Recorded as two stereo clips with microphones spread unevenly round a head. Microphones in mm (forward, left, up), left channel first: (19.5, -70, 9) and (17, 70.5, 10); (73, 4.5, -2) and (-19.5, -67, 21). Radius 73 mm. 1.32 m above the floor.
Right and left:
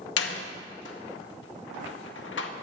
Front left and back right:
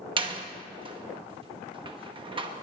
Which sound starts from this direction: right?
A door slam, at 0.2 s.